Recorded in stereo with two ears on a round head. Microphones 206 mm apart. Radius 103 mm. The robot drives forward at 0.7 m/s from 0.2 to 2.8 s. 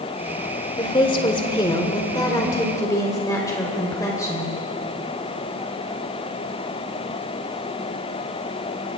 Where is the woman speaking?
20° left (ahead or behind), 1.3 m; by 4.5 s 15° left (ahead or behind), 1.8 m.